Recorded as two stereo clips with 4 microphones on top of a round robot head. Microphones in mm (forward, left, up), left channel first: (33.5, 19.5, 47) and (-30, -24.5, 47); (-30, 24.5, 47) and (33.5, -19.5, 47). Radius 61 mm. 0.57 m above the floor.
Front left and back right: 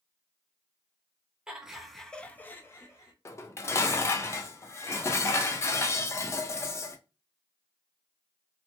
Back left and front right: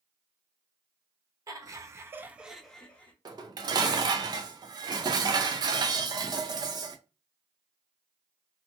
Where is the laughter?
65° right, 1.0 m; by 3.1 s 80° left, 1.0 m.